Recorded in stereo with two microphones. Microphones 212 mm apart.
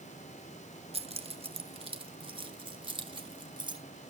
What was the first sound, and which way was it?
Keys jangling, 30° right (ahead or behind).